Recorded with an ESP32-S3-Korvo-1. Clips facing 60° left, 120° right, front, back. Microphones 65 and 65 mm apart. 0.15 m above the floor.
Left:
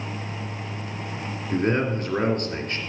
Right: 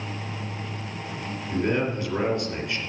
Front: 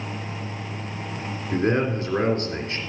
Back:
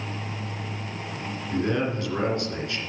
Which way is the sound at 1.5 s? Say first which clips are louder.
Left 2 dB, front 3 dB; 40° left.